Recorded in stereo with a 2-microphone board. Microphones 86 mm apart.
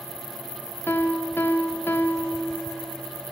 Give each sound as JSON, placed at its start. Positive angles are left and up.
{"t": 0.9, "sound": "a piano", "side_deg": 25, "distance_m": 0.5}